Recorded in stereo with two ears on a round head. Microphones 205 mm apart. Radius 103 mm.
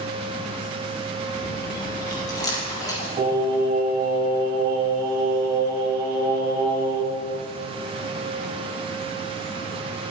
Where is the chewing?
15° left (ahead or behind), 5 m.